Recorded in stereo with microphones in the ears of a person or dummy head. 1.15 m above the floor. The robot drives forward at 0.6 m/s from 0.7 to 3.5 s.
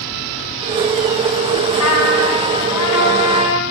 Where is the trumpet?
85° left, 7.5 m; by 3.6 s 75° left (ahead or behind), 7.5 m.